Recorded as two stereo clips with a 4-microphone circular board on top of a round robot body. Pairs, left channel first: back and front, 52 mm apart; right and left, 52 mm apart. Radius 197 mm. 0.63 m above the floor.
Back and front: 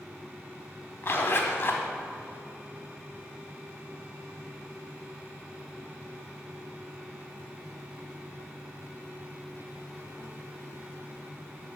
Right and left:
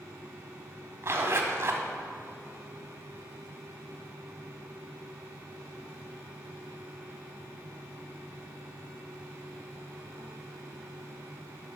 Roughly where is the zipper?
Behind left.